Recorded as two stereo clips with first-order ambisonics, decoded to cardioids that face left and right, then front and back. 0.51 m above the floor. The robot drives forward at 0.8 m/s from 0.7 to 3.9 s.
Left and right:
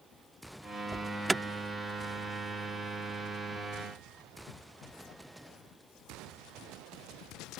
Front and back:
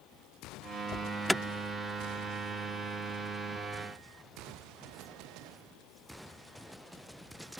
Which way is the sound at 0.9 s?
10° right.